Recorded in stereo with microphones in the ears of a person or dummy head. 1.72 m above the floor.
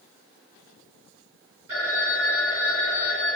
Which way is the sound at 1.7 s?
55° right (ahead or behind).